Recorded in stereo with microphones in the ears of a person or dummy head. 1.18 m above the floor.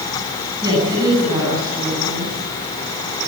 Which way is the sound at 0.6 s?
25° right (ahead or behind).